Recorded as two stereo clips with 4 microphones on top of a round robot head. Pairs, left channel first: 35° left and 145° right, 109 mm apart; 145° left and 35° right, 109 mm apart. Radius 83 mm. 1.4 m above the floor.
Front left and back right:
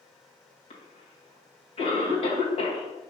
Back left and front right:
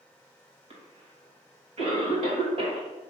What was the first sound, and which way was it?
A cough, straight ahead.